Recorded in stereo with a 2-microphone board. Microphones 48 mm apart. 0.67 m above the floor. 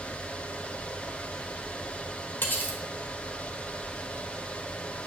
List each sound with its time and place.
2.4 s cutlery clinking: 40° left (ahead or behind), 1.5 m